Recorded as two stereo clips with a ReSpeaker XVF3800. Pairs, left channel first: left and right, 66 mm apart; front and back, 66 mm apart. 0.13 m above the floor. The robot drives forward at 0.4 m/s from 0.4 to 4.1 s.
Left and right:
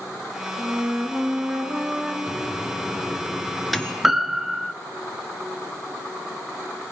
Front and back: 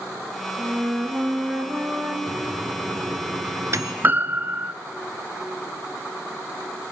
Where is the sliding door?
No sliding door in this recording.